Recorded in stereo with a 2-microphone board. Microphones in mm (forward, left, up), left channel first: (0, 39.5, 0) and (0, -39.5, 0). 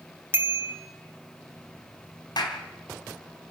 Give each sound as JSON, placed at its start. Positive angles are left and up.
{"t": 0.3, "sound": "a bicycle bell", "side_deg": -25, "distance_m": 2.5}
{"t": 2.4, "sound": "a clap", "side_deg": 60, "distance_m": 3.0}